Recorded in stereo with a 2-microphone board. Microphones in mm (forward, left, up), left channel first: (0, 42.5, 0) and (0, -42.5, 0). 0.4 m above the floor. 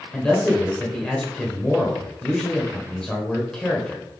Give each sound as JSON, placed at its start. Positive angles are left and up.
{"t": 0.1, "sound": "a man speaking", "side_deg": 10, "distance_m": 1.4}